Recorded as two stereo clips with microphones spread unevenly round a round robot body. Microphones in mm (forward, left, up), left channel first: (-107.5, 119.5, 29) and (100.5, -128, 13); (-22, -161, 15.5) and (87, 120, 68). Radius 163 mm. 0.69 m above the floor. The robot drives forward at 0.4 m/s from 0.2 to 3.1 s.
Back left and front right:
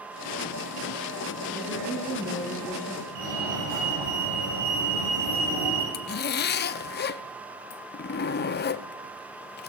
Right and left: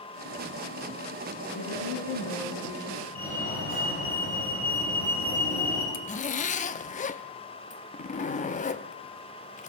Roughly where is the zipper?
Behind.